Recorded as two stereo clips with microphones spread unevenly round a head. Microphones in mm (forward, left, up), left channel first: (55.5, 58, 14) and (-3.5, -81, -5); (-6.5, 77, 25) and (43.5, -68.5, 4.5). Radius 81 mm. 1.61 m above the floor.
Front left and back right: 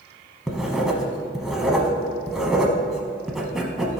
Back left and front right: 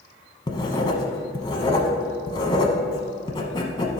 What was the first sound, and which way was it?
Writing, 150° left.